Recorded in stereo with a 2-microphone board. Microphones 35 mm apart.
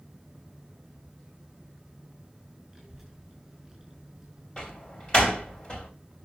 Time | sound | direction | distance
2.7 | a child speaking | centre (ahead or behind) | 5.5 m
4.6 | a door slam | 25° left (ahead or behind) | 2.5 m